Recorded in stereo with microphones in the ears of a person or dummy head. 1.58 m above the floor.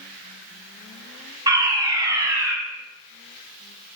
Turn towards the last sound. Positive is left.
turn(degrees=-25)  # may be behind; listen again after turning